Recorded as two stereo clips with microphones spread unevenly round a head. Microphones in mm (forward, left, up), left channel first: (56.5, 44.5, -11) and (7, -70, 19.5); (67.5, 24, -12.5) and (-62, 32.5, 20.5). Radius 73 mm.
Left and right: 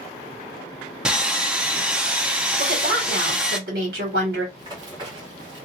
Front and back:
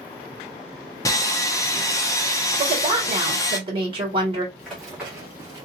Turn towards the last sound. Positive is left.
turn(degrees=-135)